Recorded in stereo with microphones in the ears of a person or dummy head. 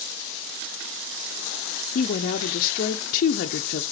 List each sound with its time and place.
1.9 s a woman speaking: 45° left (ahead or behind), 0.5 m